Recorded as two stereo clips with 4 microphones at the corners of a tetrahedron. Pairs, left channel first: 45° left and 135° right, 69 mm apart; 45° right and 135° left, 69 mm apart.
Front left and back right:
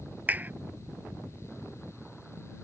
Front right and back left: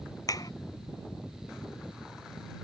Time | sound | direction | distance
0.3 | a clap | 70° right | ?